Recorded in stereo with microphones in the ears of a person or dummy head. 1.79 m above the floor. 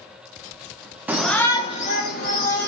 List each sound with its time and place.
1.1 s a shout: 10° right (ahead or behind), 0.6 m; by 2.7 s 60° left (ahead or behind), 1.0 m